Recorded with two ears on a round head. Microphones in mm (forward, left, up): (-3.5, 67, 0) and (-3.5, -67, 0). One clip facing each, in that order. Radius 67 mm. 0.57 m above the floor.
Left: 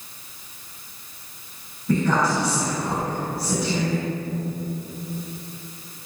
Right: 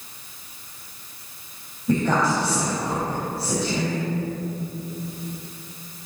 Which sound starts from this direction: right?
A woman speaking, at 1.9 s.